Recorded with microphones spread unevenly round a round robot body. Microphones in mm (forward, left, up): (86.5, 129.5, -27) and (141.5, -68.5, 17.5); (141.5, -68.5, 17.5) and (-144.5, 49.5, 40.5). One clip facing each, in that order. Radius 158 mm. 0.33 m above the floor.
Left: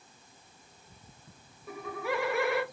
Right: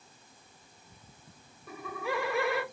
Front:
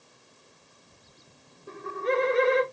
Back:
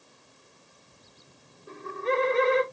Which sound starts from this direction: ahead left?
Laughter, at 1.7 s.